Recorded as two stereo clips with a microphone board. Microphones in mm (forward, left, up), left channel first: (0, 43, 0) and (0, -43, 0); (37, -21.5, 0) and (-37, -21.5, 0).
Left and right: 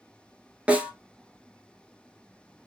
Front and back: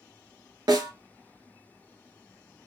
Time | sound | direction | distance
0.7 | a snare drum | 165° right | 0.9 m